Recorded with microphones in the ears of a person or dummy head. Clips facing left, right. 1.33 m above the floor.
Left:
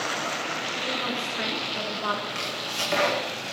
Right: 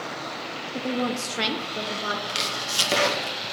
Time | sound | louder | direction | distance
0.7 | a woman speaking | right 8 dB | 70° right (ahead or behind) | 0.8 m
2.3 | chopping | right 1 dB | 50° right (ahead or behind) | 1.8 m